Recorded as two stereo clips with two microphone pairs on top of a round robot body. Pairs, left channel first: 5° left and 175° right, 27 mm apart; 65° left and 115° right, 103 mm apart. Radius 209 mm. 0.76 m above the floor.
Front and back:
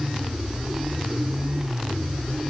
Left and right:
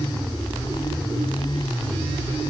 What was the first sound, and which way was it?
Only background noise.